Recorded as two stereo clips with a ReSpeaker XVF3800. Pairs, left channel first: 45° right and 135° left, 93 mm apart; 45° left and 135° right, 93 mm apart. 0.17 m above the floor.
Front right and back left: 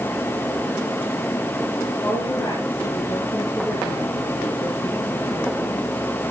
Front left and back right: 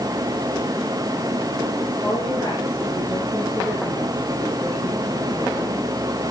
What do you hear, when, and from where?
2.0 s a woman speaking: 10° right, 6.5 m; by 5.9 s 20° right, 4.5 m